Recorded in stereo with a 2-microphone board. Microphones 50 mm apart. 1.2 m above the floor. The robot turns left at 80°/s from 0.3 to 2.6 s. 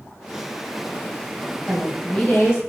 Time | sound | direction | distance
1.7 | a woman speaking | 170° right | 1.4 m